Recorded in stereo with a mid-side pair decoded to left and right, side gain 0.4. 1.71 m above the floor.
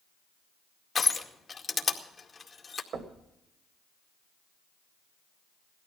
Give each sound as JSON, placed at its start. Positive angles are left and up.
{"t": 0.9, "sound": "crushing", "azimuth_deg": 40, "distance_m": 2.0}
{"t": 2.9, "sound": "knocking", "azimuth_deg": -70, "distance_m": 1.9}